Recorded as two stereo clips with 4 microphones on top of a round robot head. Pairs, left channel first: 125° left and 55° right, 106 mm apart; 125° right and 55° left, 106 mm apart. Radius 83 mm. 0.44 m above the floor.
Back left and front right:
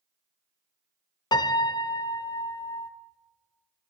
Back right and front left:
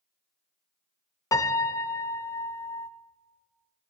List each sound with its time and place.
1.3 s a piano: 175° left, 0.6 m